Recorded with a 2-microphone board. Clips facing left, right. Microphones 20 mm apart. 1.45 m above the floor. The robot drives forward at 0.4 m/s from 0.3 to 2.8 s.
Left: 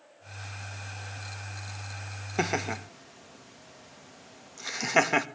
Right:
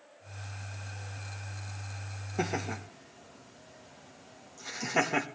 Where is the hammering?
I don't hear hammering.